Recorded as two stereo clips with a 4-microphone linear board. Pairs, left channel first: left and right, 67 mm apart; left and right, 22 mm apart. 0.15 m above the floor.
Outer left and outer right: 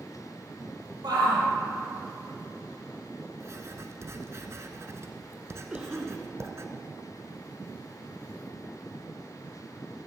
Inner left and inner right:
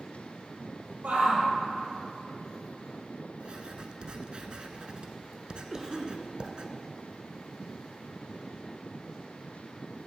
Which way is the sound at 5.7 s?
15° right (ahead or behind).